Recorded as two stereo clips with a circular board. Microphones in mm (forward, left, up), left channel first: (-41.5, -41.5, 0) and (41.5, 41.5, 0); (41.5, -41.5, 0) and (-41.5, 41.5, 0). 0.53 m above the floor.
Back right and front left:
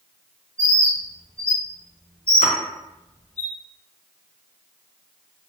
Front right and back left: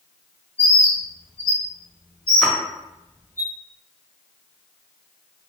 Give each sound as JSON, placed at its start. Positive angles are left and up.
{"t": 0.6, "sound": "a bird", "azimuth_deg": -80, "distance_m": 1.4}
{"t": 2.4, "sound": "a splash", "azimuth_deg": -125, "distance_m": 0.5}